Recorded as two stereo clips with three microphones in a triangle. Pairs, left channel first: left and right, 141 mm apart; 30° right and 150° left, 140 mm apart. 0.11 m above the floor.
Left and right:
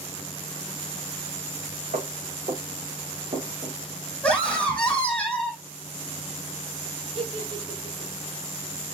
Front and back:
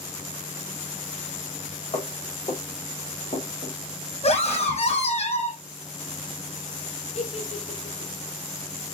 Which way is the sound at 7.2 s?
55° right.